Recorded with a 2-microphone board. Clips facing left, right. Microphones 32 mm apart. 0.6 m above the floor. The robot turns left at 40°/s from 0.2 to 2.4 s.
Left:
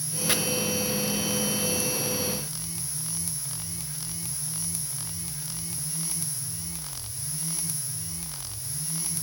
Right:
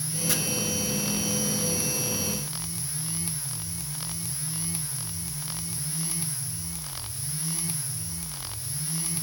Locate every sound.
0.3 s chopping: 40° left (ahead or behind), 0.8 m